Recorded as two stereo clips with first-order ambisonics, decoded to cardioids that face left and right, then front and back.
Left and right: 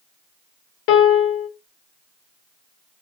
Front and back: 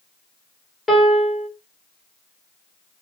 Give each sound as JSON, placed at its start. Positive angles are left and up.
{"t": 0.9, "sound": "a piano", "azimuth_deg": 85, "distance_m": 1.0}